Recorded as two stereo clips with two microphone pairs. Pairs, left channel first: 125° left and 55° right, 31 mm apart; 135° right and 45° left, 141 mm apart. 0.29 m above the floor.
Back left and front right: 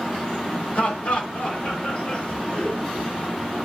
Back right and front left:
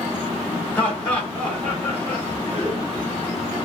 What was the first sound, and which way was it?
Laughter, 150° left.